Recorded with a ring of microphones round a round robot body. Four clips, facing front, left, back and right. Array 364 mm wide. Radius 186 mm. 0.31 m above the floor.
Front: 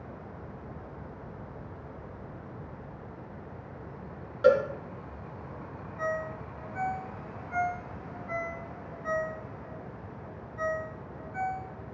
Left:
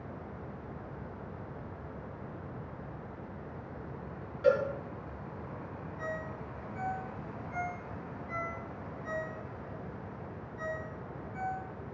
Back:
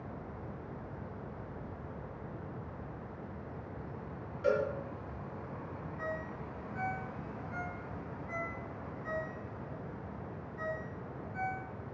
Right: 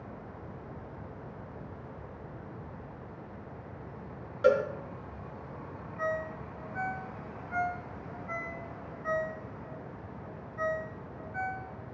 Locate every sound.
4.4 s a cowbell: 40° right, 5 m
6.0 s a ringtone: 60° right, 2.5 m